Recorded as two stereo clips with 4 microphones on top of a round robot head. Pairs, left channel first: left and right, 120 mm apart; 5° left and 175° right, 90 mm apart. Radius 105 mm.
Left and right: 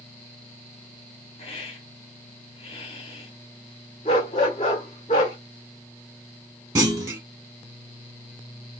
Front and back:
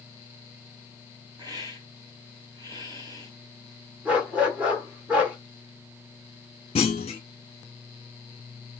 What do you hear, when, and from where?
1.4 s a hiss: 145° left, 2 m
4.0 s a dog barking: 120° left, 1.0 m
6.8 s a clunk: 30° right, 1.1 m